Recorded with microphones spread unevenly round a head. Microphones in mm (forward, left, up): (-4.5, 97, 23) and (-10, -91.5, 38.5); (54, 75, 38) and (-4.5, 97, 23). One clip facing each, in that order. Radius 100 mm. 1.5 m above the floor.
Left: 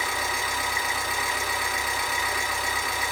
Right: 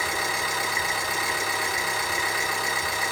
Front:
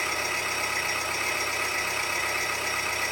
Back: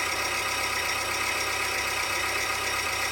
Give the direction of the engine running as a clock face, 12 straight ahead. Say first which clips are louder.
Right 1 dB, even; 2 o'clock.